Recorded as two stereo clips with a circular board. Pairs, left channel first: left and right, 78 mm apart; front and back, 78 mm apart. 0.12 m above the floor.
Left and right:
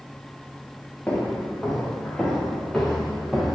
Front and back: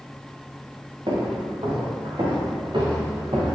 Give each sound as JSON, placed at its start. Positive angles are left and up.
{"t": 1.1, "sound": "footsteps", "azimuth_deg": 165, "distance_m": 3.0}